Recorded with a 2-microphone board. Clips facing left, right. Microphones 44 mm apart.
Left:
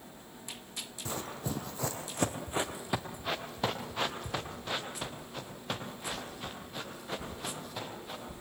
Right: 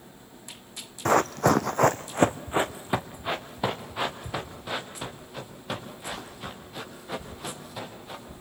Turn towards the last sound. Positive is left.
turn(degrees=0)  # may be behind; listen again after turning